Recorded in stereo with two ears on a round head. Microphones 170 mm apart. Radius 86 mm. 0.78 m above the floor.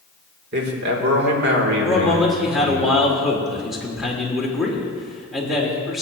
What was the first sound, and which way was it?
A man speaking, 55° right (ahead or behind).